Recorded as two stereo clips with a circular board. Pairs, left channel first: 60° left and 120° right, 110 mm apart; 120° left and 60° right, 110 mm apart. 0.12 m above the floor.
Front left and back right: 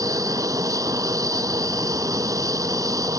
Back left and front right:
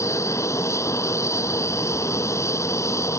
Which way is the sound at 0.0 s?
Straight behind.